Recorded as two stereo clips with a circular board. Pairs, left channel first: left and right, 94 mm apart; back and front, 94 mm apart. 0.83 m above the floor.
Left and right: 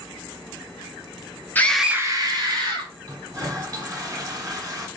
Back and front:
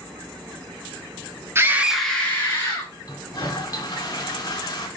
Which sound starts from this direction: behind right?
A toilet flushing, at 3.0 s.